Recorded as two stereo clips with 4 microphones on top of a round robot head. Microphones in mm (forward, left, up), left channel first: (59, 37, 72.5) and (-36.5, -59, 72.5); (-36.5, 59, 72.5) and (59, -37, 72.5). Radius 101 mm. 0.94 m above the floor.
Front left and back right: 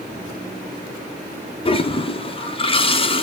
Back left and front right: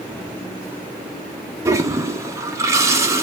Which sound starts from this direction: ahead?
A toilet flushing, at 1.6 s.